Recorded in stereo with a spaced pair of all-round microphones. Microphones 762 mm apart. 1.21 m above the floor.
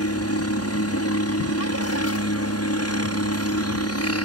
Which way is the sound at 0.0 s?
20° left (ahead or behind).